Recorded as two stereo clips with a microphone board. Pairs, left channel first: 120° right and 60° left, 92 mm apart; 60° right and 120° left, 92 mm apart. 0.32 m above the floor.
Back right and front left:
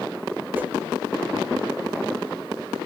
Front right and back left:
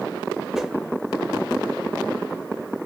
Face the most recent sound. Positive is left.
turn(degrees=45)